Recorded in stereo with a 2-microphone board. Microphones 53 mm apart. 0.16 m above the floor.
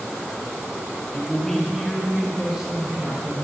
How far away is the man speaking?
About 1.8 m.